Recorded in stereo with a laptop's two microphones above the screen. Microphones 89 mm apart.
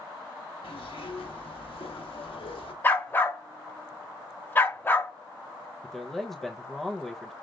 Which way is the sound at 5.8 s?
5° left (ahead or behind).